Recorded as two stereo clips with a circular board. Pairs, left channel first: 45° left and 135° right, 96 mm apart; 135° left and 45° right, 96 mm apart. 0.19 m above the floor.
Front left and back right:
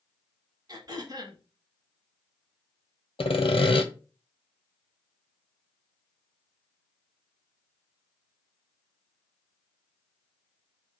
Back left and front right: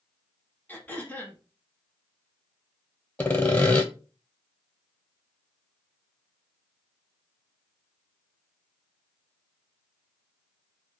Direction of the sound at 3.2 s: 65° left.